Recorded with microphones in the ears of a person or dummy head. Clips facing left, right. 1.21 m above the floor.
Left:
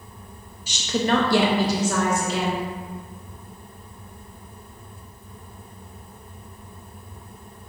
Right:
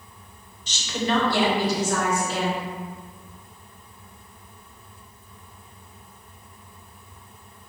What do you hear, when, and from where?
0.7 s a woman speaking: 10° left (ahead or behind), 0.7 m; by 2.7 s 65° left (ahead or behind), 1.9 m